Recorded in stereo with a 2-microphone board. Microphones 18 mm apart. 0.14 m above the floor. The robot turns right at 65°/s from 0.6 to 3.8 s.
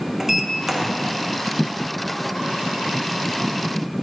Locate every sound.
0.2 s a sliding door: 15° right (ahead or behind), 0.5 m; by 0.9 s 10° right (ahead or behind), 0.5 m